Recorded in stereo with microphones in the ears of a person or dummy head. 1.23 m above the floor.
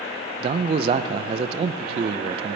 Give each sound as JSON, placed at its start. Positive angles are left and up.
{"t": 0.4, "sound": "a man speaking", "side_deg": -35, "distance_m": 0.5}